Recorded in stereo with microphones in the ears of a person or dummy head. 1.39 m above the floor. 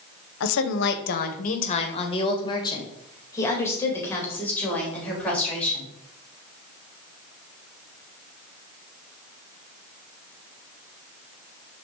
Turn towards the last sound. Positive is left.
turn(degrees=5)  # may be behind; listen again after turning